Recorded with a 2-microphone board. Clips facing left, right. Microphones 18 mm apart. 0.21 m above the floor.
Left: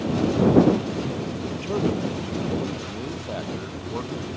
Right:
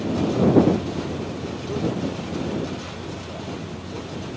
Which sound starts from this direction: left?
A man speaking, at 1.5 s.